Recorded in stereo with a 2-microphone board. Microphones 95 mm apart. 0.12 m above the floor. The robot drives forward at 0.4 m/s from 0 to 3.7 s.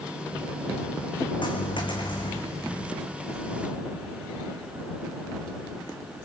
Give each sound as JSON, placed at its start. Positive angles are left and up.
{"t": 1.4, "sound": "a dropped coin", "side_deg": 60, "distance_m": 3.0}